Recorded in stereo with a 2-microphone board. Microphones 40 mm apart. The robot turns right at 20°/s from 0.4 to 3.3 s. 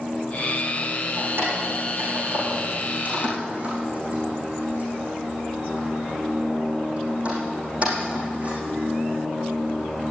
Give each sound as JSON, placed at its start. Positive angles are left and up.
{"t": 1.2, "sound": "keys jangling", "side_deg": -75, "distance_m": 6.5}